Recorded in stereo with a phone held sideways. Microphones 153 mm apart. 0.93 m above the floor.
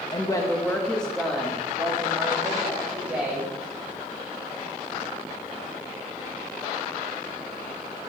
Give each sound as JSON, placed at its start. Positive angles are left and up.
{"t": 0.1, "sound": "a woman speaking", "side_deg": 30, "distance_m": 1.0}